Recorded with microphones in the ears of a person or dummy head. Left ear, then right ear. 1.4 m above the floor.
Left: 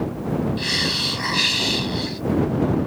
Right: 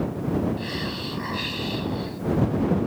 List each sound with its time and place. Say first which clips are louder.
0.6 s a hiss: left 9 dB; 35° left (ahead or behind)